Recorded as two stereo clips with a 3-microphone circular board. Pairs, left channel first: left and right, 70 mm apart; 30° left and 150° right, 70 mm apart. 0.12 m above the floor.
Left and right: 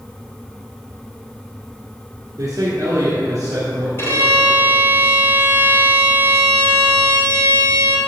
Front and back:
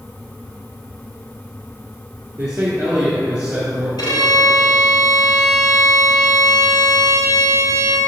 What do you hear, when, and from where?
2.4 s a man speaking: 85° right, 1.8 m
4.0 s a violin: 40° left, 2 m